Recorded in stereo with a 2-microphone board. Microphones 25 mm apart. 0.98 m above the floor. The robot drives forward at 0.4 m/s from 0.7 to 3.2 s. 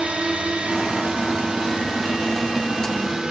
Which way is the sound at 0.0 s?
50° right (ahead or behind).